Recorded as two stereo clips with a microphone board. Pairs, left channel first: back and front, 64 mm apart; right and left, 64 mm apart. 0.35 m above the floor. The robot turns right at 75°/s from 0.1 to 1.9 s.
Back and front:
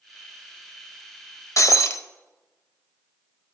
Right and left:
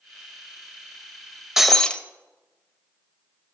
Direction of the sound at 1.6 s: 175° left.